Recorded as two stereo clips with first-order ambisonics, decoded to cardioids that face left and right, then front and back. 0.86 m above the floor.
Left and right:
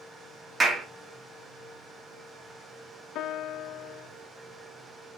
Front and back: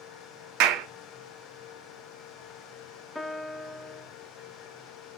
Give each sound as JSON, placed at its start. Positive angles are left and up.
{"t": 0.6, "sound": "a clap", "azimuth_deg": -160, "distance_m": 1.4}
{"t": 3.1, "sound": "a piano", "azimuth_deg": 80, "distance_m": 0.5}